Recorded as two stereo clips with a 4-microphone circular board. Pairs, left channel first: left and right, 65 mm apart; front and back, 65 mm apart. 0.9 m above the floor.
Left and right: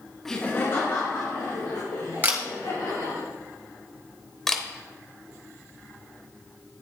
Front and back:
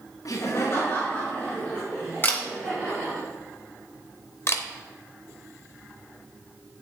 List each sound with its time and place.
0.2 s laughter: 5° left, 0.8 m; by 3.2 s 75° left, 4.5 m
2.2 s a camera shutter: 40° right, 1.2 m
4.5 s a camera shutter: 10° left, 0.8 m